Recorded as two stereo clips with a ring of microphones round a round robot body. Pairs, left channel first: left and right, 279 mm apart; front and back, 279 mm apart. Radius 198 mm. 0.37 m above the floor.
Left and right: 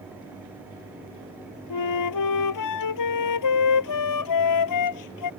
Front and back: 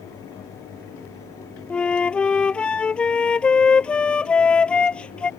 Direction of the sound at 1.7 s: 85° left.